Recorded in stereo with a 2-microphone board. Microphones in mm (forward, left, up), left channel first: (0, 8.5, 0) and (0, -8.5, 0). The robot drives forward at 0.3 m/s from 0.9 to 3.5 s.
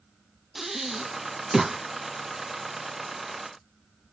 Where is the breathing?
25° right (ahead or behind), 0.9 m; by 1.8 s 30° right (ahead or behind), 0.8 m.